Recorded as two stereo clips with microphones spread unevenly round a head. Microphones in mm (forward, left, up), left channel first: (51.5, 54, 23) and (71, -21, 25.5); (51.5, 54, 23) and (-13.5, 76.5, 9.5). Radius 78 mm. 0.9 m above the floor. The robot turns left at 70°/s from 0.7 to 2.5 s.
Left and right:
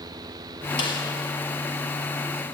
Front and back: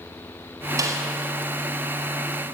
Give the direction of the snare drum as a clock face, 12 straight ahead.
7 o'clock.